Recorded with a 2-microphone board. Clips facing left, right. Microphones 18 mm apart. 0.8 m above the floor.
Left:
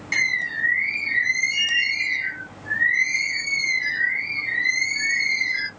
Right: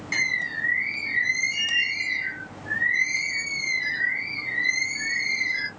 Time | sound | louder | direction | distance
0.1 | a bird | left 3 dB | 15° left (ahead or behind) | 1.0 m